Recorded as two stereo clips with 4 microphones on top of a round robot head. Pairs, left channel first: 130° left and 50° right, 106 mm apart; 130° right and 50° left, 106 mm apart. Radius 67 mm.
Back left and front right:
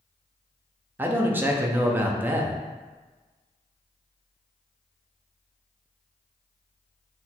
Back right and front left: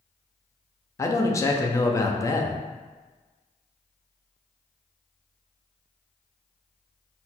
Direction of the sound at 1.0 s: 105° right.